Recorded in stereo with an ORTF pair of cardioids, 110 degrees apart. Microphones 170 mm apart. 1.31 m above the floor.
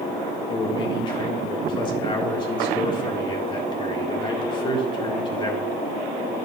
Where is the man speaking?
30° left, 2 m.